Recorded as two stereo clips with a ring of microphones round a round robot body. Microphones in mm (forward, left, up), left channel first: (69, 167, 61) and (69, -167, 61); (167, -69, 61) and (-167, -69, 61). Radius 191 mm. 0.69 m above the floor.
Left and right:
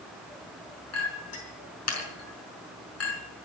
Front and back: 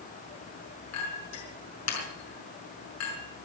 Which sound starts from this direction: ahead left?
A clink, at 0.9 s.